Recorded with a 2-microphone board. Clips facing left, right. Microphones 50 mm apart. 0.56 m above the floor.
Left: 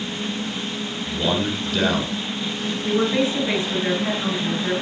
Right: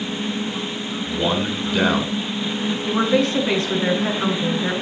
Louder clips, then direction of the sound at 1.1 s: Right 1 dB; 25° right (ahead or behind).